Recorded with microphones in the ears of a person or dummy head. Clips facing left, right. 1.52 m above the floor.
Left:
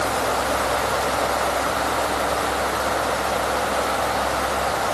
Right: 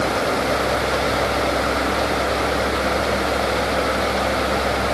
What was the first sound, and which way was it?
Only background noise.